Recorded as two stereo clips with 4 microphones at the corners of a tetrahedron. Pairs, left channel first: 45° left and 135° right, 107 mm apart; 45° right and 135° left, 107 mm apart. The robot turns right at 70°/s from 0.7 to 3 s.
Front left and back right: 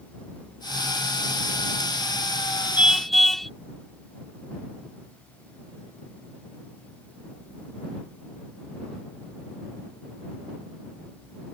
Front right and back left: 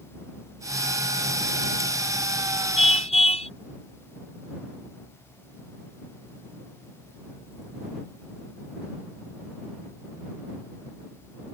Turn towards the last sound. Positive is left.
turn(degrees=-40)